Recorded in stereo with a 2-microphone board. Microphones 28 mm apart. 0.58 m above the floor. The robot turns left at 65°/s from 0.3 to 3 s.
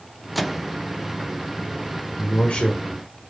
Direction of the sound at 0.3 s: 5° left (ahead or behind).